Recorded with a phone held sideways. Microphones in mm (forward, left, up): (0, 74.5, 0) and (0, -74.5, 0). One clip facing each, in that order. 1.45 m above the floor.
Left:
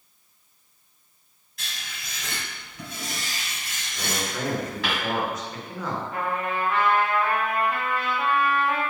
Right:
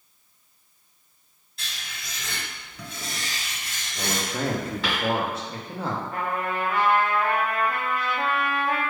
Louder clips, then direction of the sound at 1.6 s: Even; 25° right (ahead or behind).